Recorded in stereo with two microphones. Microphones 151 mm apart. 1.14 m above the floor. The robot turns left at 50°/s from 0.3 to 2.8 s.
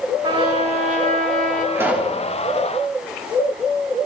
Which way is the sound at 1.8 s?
20° right (ahead or behind).